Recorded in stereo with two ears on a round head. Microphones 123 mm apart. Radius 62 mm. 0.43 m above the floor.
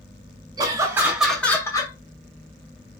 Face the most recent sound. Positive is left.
turn(degrees=30)  # may be behind; listen again after turning